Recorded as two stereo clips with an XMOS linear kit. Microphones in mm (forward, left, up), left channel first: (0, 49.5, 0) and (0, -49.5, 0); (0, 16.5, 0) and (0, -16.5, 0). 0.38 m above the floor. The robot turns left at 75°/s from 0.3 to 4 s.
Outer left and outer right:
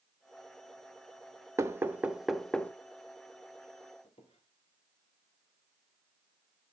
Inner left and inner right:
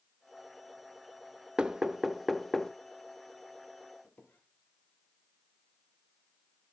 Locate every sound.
1.6 s knocking: 30° right (ahead or behind), 0.7 m; by 2.7 s 15° left (ahead or behind), 0.7 m
4.0 s a squeak: 75° left (ahead or behind), 1.8 m